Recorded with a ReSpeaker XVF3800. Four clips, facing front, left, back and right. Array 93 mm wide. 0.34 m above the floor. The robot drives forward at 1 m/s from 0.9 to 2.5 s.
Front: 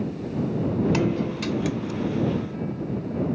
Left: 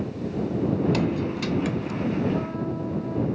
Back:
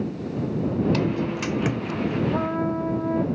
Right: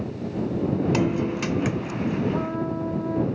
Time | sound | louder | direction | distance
0.9 | a guitar | right 2 dB, even | 50° right | ?
2.3 | a trumpet | right 1 dB, back 5 dB | 170° right | ?